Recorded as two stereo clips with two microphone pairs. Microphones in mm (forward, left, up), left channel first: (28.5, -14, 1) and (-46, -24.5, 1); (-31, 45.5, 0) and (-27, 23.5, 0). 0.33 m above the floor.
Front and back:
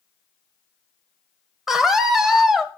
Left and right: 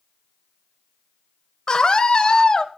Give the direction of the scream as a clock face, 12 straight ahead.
9 o'clock.